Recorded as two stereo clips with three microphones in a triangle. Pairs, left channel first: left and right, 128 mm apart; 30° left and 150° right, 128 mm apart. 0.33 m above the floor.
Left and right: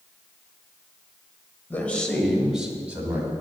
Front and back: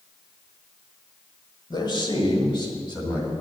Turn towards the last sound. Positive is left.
turn(degrees=-20)